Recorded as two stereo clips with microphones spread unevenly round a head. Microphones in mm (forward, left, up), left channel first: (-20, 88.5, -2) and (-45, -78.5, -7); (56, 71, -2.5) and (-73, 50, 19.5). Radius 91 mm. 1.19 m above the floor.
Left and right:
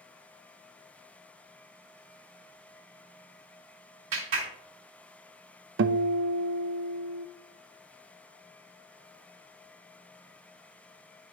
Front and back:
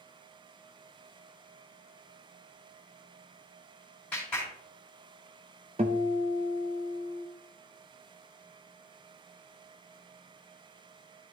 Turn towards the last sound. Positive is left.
turn(degrees=-110)